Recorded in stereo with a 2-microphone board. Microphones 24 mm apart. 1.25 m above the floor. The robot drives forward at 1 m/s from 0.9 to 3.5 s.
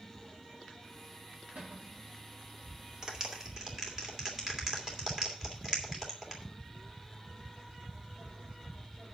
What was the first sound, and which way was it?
A cupboard door, 70° right (ahead or behind).